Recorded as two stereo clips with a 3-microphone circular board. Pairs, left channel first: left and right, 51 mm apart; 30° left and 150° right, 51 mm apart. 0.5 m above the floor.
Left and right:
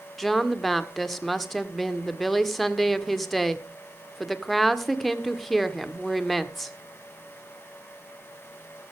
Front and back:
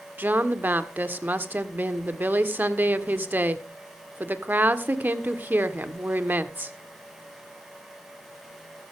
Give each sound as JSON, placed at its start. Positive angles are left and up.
{"t": 0.2, "sound": "a woman speaking", "azimuth_deg": 180, "distance_m": 1.5}